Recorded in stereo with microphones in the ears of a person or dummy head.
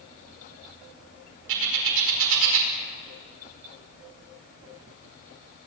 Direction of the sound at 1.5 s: 75° right (ahead or behind).